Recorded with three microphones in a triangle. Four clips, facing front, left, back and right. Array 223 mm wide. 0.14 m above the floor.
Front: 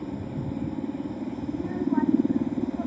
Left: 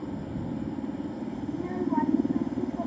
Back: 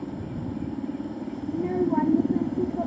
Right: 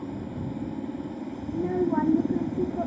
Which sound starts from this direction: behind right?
A child speaking, at 1.5 s.